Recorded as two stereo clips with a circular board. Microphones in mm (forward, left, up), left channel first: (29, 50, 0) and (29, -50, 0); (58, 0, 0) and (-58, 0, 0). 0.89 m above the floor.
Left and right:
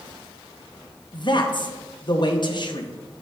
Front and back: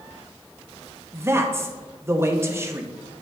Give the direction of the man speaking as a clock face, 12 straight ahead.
8 o'clock.